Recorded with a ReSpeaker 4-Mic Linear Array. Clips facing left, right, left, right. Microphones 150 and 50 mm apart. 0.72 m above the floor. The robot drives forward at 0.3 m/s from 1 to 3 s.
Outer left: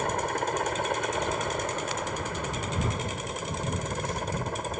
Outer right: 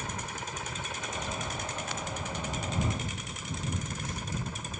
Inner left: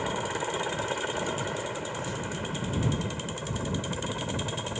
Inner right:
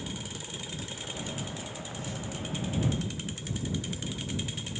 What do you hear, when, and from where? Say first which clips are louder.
0.0 s a helicopter: outer left 11 dB, inner left 10 dB; 60° left (ahead or behind)